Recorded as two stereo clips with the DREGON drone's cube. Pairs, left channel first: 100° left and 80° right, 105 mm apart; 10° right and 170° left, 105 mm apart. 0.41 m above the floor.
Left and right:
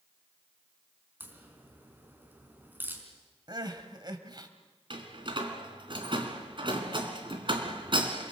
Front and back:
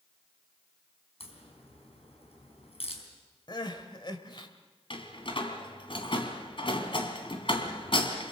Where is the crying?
45° right, 1.9 m.